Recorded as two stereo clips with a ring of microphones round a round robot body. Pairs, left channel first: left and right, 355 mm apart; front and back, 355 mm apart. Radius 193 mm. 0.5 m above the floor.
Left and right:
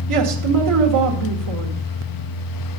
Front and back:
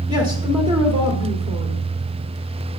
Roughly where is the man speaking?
Right.